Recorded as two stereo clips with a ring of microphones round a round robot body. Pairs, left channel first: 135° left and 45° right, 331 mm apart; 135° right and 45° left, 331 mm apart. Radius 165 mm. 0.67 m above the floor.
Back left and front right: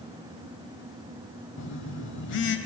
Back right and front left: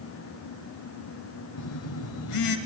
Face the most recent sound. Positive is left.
turn(degrees=-170)